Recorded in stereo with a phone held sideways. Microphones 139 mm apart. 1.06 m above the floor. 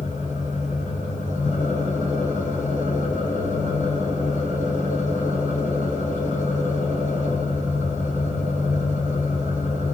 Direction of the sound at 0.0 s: 60° right (ahead or behind).